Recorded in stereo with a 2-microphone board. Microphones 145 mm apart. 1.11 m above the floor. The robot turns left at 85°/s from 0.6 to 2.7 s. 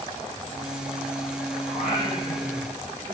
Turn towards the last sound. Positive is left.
turn(degrees=5)